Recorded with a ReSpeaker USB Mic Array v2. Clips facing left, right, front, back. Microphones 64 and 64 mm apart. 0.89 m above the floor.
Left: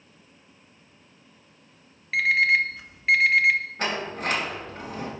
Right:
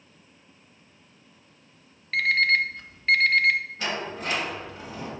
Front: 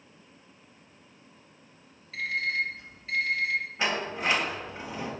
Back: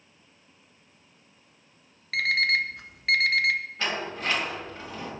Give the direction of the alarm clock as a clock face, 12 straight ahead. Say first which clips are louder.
Left 1 dB, back 5 dB; 6 o'clock.